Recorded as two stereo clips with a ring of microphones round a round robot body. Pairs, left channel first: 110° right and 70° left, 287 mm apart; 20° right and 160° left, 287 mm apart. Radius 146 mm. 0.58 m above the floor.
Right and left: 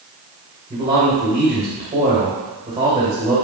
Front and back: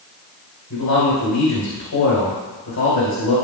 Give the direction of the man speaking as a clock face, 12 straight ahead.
12 o'clock.